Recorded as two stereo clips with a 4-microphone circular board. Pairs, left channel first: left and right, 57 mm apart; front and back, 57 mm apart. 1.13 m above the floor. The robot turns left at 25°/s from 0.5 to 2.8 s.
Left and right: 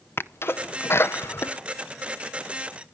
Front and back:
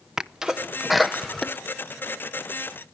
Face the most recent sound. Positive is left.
turn(degrees=45)